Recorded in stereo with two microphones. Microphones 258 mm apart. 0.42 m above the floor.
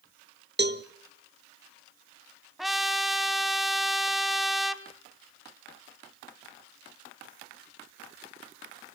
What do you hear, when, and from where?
0.6 s a cowbell: 40° right (ahead or behind), 0.9 m
2.6 s a trumpet: centre (ahead or behind), 0.9 m